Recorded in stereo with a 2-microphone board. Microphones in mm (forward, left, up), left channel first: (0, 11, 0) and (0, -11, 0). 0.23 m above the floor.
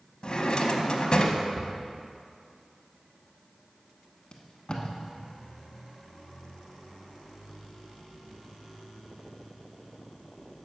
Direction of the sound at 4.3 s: 35° left (ahead or behind).